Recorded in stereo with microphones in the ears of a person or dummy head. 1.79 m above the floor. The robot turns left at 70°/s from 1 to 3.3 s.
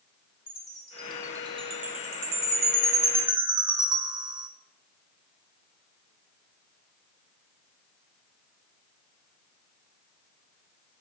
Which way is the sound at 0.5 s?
5° left (ahead or behind).